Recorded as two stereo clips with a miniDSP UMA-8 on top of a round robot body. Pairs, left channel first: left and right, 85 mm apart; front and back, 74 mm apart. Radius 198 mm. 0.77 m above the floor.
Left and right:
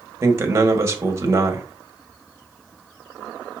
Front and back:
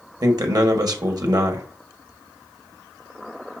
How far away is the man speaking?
About 1.6 m.